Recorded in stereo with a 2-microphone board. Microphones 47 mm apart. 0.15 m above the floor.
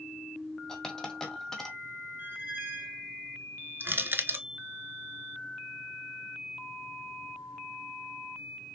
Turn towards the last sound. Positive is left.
turn(degrees=-50)  # may be behind; listen again after turning